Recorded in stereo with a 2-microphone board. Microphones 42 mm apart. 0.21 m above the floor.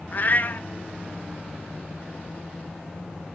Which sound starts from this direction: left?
A cat meowing, at 0.1 s.